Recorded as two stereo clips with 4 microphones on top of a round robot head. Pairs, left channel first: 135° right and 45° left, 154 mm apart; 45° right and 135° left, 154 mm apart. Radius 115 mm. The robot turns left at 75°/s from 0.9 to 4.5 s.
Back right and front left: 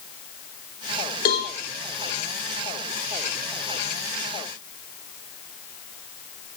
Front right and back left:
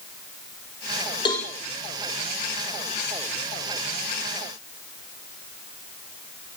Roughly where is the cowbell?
Right.